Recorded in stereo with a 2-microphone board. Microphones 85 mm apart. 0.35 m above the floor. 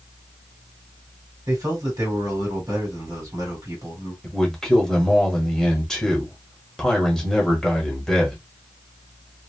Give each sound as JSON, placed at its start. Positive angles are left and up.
{"t": 1.5, "sound": "a man speaking", "side_deg": -45, "distance_m": 1.9}
{"t": 4.2, "sound": "a man speaking", "side_deg": 5, "distance_m": 1.2}